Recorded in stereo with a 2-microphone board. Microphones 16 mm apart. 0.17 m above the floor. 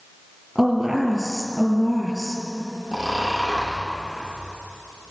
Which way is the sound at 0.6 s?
25° right (ahead or behind).